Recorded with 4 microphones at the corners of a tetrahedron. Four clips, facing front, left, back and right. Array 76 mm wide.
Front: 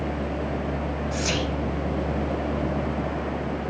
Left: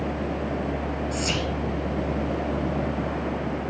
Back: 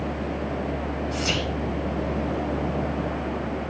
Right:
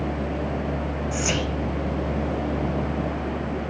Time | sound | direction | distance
1.1 | whispering | 75° right | 0.9 m